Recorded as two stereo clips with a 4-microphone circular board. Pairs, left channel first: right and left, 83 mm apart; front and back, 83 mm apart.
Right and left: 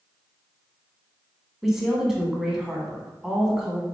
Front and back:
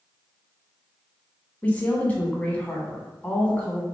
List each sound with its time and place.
1.6 s a woman speaking: 10° left, 1.2 m